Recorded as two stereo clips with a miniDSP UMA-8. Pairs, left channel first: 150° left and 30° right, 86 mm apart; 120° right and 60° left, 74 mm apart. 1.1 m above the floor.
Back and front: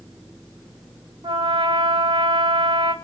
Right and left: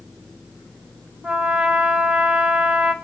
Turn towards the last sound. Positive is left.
turn(degrees=-15)